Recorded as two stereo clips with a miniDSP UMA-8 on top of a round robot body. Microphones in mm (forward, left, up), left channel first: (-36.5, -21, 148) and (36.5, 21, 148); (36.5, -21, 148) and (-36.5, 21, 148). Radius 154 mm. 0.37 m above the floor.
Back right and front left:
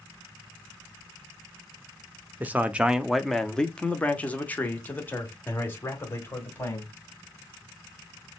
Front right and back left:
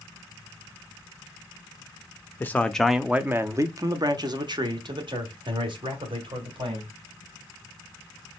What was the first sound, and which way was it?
A man speaking, 5° right.